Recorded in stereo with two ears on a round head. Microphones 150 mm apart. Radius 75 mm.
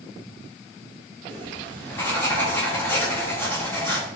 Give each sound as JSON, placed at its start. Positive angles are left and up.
{"t": 1.3, "sound": "writing", "side_deg": 15, "distance_m": 1.2}